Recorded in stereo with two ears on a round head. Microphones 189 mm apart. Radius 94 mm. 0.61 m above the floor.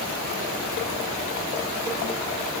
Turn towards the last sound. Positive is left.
No sound to turn to.